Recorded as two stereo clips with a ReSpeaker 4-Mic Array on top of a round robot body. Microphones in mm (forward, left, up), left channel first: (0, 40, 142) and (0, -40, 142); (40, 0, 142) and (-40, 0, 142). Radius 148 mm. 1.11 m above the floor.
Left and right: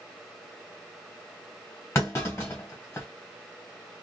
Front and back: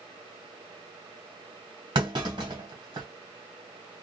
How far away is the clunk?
About 1.5 m.